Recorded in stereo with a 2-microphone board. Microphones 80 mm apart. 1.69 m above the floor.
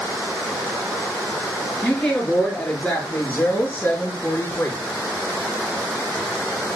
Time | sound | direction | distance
1.8 | a woman speaking | 5° left (ahead or behind) | 5 m